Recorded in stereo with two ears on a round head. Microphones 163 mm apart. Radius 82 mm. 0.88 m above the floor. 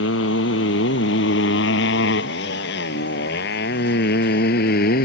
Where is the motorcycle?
75° left (ahead or behind); by 5.1 s 55° left (ahead or behind).